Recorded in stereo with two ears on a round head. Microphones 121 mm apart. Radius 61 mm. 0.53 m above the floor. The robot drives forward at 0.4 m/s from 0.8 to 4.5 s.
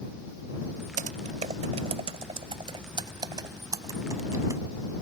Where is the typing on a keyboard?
60° right (ahead or behind); by 4.6 s 25° right (ahead or behind).